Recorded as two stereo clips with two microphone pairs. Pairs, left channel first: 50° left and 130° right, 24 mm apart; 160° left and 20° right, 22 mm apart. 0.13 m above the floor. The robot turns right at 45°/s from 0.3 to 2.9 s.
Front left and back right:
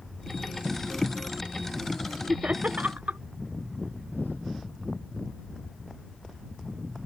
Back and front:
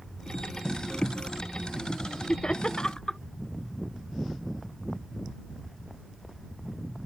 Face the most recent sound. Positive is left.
turn(degrees=-140)